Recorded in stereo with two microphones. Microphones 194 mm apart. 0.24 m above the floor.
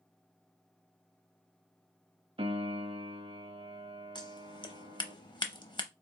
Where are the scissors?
25° left (ahead or behind), 0.6 m.